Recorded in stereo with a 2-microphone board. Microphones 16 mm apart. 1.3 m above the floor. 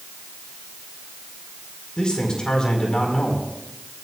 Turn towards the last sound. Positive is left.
turn(degrees=70)  # may be behind; listen again after turning